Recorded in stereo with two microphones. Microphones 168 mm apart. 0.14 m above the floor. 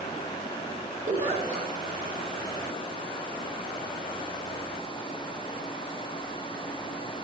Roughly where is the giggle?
Right.